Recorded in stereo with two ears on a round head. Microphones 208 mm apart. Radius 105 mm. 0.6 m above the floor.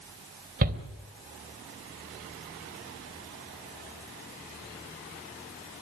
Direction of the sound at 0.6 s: 40° right (ahead or behind).